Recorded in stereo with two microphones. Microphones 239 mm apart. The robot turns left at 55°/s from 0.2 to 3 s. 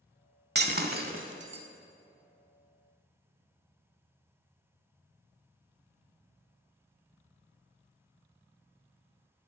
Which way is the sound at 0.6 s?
45° right (ahead or behind).